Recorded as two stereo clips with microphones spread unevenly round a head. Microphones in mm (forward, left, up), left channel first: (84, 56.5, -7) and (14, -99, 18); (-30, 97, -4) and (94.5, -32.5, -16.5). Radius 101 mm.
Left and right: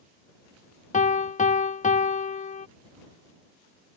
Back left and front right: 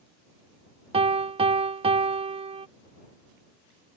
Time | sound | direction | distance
0.9 | a piano | 15° left | ?